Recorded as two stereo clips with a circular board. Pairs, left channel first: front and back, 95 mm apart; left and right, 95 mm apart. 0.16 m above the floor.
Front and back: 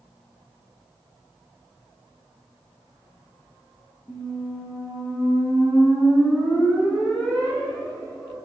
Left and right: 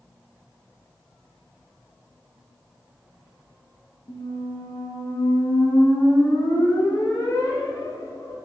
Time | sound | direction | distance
4.1 | a squeak | 70° left | 0.8 m